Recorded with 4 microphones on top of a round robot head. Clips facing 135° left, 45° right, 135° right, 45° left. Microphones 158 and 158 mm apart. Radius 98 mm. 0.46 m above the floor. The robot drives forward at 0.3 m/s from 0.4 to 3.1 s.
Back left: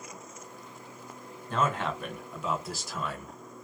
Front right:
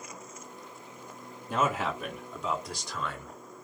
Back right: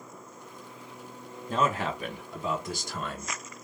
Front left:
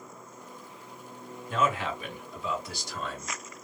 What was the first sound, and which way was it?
A man speaking, 120° right.